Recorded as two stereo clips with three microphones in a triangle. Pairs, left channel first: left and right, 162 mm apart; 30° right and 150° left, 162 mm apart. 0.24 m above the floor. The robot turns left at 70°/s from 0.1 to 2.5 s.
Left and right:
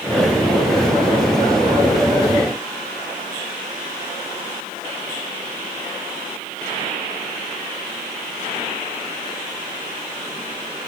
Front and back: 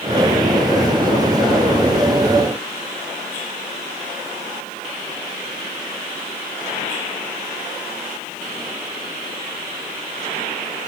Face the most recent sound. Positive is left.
No sound to turn to.